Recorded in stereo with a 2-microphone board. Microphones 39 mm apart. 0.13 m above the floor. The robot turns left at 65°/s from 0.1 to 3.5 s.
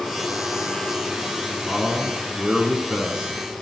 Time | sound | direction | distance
1.6 | a man speaking | 5° right (ahead or behind) | 1.3 m